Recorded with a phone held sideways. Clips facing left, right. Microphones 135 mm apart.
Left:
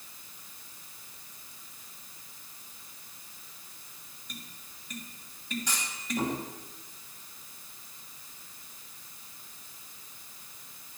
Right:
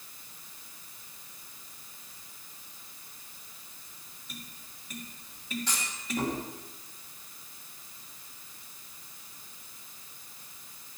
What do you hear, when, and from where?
4.3 s tapping: 5° right (ahead or behind), 3 m
5.7 s a clunk: 15° left (ahead or behind), 10 m